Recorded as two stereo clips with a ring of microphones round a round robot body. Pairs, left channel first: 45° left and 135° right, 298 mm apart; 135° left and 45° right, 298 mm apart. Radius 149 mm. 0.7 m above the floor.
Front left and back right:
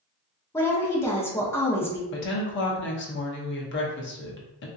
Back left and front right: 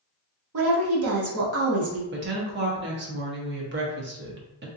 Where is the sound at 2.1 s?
Straight ahead, 0.9 m.